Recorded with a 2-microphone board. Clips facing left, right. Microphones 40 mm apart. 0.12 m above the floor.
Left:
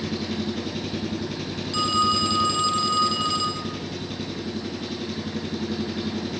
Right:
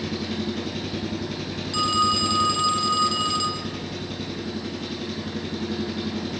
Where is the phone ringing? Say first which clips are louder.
Even; centre (ahead or behind), 2 m.